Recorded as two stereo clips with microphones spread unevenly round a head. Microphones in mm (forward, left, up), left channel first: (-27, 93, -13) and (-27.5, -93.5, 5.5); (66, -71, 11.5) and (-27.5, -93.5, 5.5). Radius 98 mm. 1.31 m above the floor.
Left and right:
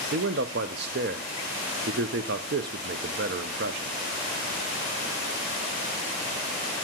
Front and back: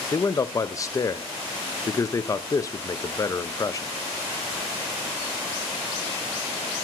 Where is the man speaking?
50° right, 0.5 m.